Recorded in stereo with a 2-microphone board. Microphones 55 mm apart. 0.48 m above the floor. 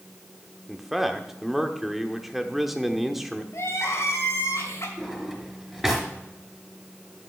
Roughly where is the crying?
Left.